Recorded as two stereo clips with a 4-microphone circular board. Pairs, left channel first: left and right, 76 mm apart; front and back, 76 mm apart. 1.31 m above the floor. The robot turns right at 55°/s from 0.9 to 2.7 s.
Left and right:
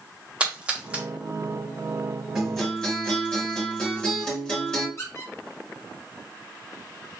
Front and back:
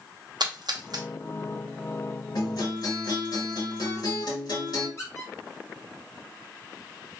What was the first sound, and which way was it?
A splash, 160° right.